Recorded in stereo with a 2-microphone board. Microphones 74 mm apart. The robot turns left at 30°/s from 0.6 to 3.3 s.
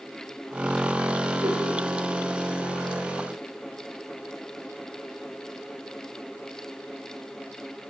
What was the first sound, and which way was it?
A whoosh, 70° right (ahead or behind).